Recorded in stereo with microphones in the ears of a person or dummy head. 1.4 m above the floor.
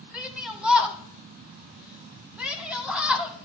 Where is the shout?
Centre (ahead or behind), 1.3 m.